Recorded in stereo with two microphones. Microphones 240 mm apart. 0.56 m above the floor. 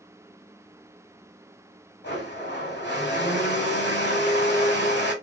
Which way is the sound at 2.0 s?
45° left (ahead or behind).